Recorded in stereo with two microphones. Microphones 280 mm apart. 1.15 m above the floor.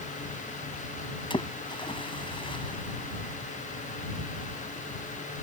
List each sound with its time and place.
1.3 s a splash: 15° left (ahead or behind)